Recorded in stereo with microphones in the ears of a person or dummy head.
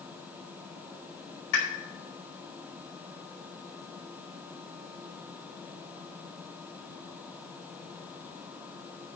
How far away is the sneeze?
I don't hear a sneeze.